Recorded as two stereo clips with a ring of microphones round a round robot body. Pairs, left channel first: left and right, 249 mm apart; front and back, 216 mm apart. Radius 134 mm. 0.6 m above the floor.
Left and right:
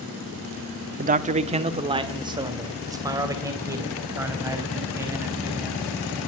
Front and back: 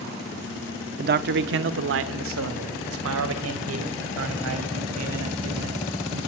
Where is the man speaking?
140° right, 0.9 m; by 6.2 s 170° right, 4.5 m.